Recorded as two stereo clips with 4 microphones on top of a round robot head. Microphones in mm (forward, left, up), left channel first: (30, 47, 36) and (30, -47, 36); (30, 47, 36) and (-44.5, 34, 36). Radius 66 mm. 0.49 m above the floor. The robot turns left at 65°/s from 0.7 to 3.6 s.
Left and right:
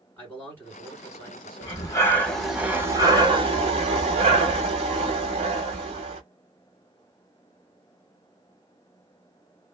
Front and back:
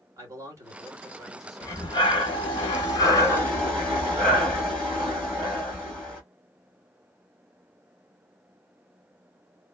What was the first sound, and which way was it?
A man speaking, 155° left.